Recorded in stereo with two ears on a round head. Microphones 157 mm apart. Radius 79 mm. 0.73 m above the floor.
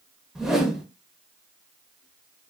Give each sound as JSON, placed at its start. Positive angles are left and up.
{"t": 0.3, "sound": "a whoosh", "side_deg": -5, "distance_m": 0.5}